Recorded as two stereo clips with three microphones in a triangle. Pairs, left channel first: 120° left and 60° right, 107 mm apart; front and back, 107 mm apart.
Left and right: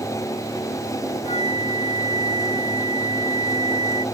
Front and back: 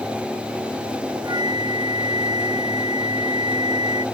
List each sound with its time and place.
1.2 s a flute: 130° left